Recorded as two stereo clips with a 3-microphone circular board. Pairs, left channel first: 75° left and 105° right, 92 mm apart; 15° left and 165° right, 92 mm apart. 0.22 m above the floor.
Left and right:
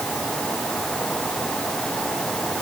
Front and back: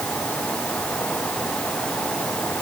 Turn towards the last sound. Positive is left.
No sound to turn to.